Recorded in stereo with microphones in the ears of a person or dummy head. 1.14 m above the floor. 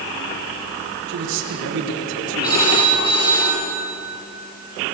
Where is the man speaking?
70° right (ahead or behind), 3.5 m.